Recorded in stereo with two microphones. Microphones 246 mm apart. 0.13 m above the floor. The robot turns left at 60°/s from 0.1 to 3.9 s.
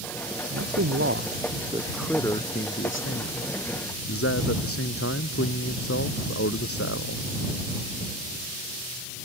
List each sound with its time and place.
0.5 s a man speaking: 85° right; by 7.2 s 70° left